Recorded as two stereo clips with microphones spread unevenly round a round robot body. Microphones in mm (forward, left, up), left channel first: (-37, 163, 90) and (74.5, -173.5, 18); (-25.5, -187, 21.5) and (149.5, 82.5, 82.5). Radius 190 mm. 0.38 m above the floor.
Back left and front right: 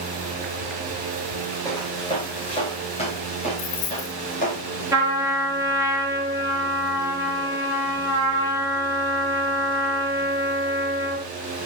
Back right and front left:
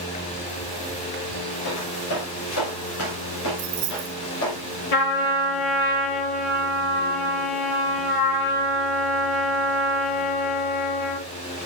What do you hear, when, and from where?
1.6 s footsteps: 170° right, 10 m; by 4.6 s 175° left, 13 m
3.6 s keys jangling: 80° left, 3 m
4.9 s a trumpet: 155° right, 5.5 m